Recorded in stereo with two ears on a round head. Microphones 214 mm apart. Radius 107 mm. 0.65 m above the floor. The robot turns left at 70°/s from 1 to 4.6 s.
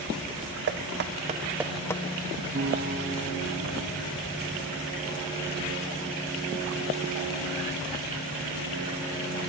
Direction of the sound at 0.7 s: 45° right (ahead or behind).